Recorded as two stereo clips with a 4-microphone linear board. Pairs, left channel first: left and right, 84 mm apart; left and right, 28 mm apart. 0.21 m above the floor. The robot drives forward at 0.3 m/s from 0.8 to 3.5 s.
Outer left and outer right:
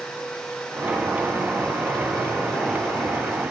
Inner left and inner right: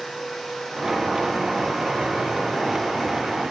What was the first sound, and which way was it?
Only background noise.